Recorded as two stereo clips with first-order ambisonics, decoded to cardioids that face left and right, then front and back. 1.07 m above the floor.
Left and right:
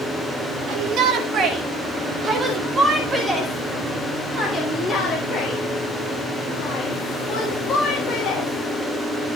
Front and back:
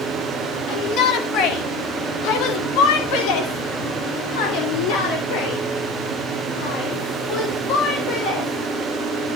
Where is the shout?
50° right, 3 m; by 9.4 s 30° left, 6.5 m.